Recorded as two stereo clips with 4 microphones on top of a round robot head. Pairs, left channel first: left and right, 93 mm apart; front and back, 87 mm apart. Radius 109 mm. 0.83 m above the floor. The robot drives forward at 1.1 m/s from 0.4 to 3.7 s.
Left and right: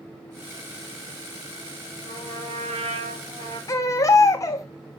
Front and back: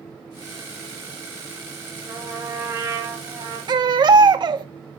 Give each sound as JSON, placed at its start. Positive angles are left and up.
{"t": 2.1, "sound": "a trumpet", "azimuth_deg": -105, "distance_m": 4.5}
{"t": 3.7, "sound": "a baby crying", "azimuth_deg": 145, "distance_m": 1.4}